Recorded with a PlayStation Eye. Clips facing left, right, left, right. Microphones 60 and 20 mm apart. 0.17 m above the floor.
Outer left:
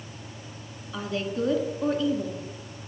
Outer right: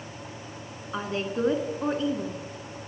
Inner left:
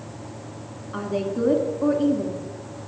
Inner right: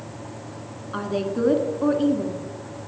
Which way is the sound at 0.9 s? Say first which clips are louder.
Even, inner right 1 dB; 30° right (ahead or behind).